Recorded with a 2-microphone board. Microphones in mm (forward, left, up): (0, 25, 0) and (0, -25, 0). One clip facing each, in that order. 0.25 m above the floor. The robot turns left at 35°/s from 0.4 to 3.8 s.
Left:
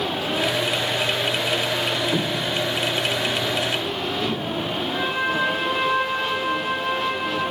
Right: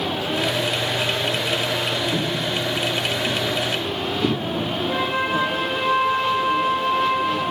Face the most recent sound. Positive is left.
turn(degrees=-60)  # may be behind; listen again after turning